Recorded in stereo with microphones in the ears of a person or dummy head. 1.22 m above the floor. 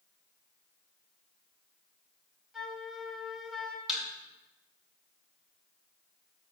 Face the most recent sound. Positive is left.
turn(degrees=0)  # may be behind; listen again after turning